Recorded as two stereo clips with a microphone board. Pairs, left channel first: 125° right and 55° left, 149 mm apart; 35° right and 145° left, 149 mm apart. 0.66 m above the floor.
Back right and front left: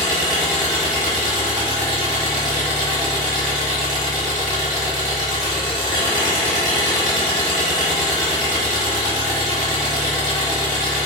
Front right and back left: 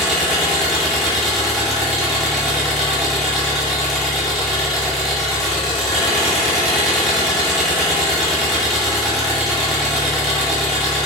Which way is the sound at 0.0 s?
55° left.